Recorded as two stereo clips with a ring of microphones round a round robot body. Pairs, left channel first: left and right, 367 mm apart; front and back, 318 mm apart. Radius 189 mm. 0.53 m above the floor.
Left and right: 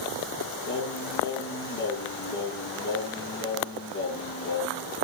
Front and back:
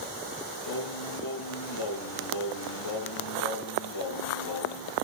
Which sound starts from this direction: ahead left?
Singing, at 0.7 s.